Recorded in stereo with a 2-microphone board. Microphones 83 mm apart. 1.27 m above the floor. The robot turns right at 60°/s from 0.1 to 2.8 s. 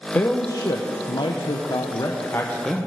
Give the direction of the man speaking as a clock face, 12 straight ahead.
11 o'clock.